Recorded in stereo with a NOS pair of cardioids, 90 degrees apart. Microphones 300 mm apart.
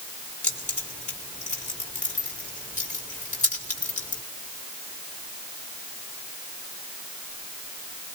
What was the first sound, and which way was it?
Keys jangling, 25° left.